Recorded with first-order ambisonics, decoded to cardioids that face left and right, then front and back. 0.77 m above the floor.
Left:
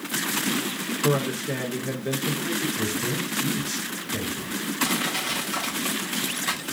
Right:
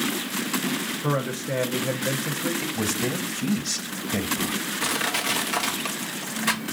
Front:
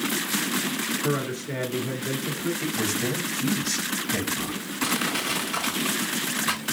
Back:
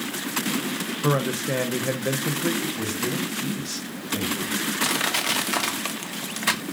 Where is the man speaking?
175° right, 0.7 m.